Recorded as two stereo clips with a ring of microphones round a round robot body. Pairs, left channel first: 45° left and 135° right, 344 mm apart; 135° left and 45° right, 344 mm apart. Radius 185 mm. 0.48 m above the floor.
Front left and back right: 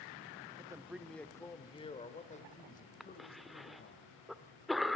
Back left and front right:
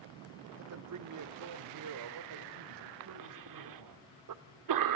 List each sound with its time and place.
0.6 s a man speaking: 65° right, 1.0 m; by 4.0 s 15° right, 3 m
3.0 s a cough: 45° right, 1.2 m